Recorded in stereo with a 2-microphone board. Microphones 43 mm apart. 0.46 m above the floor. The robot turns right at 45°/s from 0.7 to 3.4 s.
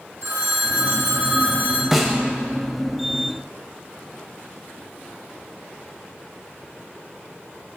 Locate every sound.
0.2 s a phone ringing: 100° right, 1.3 m; by 1.8 s 50° right, 1.3 m
1.9 s a snare drum: 5° right (ahead or behind), 0.7 m; by 2.2 s 10° left (ahead or behind), 0.7 m